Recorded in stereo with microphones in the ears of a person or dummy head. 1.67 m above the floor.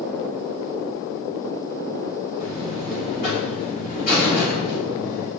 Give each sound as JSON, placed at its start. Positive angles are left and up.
{"t": 2.4, "sound": "a buzzer", "side_deg": 45, "distance_m": 4.0}